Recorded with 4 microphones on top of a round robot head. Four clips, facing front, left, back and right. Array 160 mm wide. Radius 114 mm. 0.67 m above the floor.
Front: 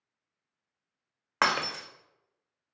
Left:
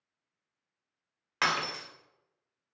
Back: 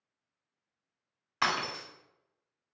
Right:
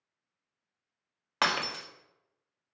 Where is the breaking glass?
20° right, 1.6 m.